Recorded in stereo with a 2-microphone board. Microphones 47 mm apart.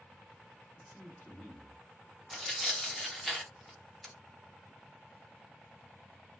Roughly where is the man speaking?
Left.